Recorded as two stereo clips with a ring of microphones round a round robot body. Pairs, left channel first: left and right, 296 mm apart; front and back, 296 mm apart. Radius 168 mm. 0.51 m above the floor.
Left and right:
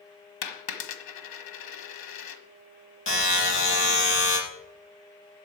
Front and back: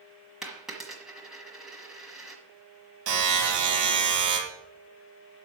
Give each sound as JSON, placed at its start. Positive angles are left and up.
{"t": 0.4, "sound": "a dropped coin", "azimuth_deg": 90, "distance_m": 1.3}
{"t": 3.1, "sound": "a buzzer", "azimuth_deg": 140, "distance_m": 5.5}